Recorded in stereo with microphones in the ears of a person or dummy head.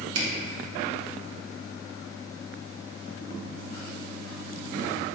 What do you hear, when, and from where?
0.1 s a camera shutter: 75° right (ahead or behind), 1.1 m